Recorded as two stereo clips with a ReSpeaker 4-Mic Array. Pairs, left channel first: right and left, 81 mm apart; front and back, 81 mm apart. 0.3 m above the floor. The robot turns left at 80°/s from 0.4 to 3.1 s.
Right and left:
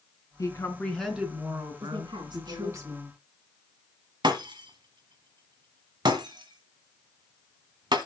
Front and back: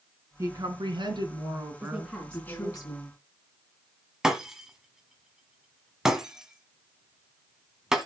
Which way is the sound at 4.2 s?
95° left.